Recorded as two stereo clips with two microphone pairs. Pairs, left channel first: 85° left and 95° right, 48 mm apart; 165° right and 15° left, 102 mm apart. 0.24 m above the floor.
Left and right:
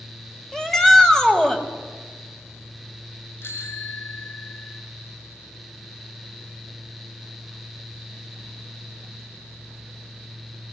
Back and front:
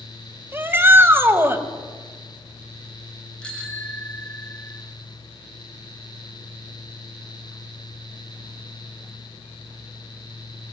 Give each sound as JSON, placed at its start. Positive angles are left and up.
{"t": 0.5, "sound": "a shout", "azimuth_deg": 20, "distance_m": 1.6}
{"t": 3.4, "sound": "a bicycle bell", "azimuth_deg": 110, "distance_m": 2.0}